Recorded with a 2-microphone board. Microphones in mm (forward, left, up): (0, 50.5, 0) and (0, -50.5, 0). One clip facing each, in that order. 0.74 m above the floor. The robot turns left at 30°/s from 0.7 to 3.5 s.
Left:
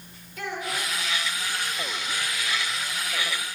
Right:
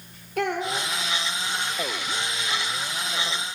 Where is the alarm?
No alarm in this recording.